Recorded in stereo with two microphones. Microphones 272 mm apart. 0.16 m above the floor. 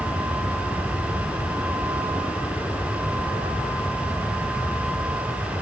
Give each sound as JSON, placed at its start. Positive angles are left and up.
{"t": 0.0, "sound": "an aircraft", "side_deg": 10}